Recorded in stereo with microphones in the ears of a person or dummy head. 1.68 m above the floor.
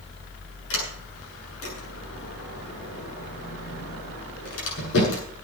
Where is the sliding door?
70° left (ahead or behind), 7.5 m.